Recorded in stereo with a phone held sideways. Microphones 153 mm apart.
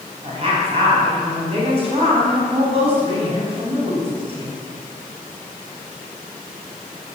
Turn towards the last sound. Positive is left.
turn(degrees=-40)  # may be behind; listen again after turning